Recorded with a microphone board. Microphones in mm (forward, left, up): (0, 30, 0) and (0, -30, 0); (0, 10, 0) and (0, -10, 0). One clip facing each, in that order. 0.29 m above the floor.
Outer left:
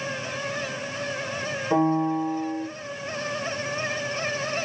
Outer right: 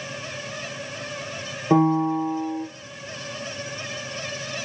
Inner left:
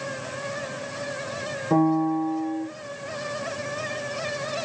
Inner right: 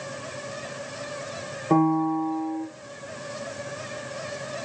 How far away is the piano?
About 1.2 m.